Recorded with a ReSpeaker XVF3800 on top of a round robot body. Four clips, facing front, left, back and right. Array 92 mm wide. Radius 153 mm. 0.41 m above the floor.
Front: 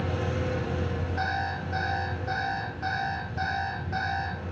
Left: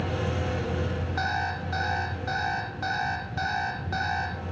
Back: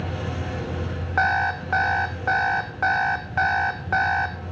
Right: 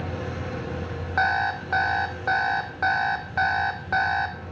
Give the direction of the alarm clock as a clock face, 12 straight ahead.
5 o'clock.